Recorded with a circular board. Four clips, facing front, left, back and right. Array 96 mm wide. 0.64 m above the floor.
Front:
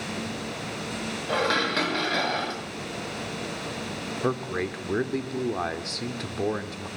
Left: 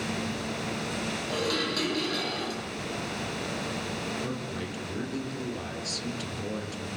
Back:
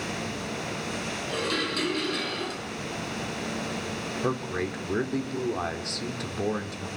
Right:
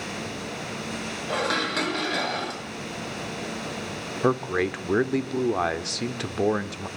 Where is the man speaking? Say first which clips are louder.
Right 11 dB, front 2 dB; 85° right, 1.5 m.